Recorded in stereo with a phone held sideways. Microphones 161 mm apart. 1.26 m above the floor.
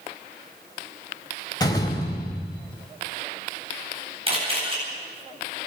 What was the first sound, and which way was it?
A door slam, 20° left (ahead or behind).